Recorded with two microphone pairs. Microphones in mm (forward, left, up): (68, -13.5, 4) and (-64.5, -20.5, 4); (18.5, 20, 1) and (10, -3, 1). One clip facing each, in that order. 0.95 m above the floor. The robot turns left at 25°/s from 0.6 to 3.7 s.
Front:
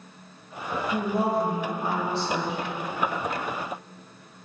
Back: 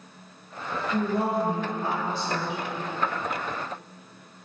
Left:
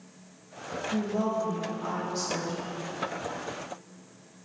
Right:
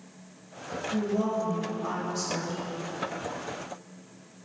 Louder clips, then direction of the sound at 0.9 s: Even, right 1 dB; 65° left.